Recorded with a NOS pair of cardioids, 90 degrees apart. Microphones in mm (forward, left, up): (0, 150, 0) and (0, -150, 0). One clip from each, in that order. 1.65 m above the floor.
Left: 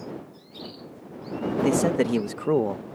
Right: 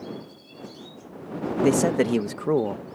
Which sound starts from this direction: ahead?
A man speaking, at 1.6 s.